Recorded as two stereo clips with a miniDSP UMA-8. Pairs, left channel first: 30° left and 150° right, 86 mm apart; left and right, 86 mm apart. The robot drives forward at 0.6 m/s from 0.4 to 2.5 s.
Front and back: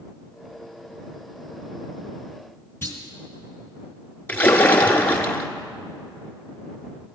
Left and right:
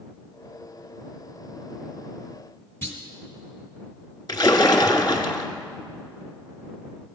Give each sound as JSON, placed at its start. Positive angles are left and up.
{"t": 2.8, "sound": "a clunk", "azimuth_deg": 70, "distance_m": 1.4}
{"t": 4.3, "sound": "a splash", "azimuth_deg": 95, "distance_m": 0.7}